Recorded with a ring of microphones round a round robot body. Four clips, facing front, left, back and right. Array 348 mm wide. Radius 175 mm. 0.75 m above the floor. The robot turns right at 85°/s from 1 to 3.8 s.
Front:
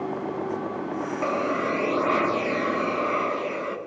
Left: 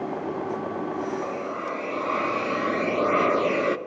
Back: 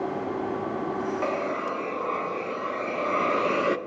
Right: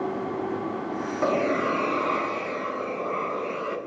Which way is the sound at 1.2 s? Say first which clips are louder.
Right 6 dB, front 3 dB; 80° right.